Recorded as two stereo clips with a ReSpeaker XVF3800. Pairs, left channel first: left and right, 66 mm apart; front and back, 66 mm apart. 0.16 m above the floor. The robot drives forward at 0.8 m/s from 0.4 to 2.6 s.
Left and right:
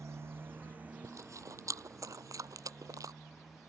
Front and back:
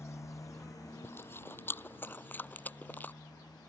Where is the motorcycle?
45° right; by 3.7 s straight ahead.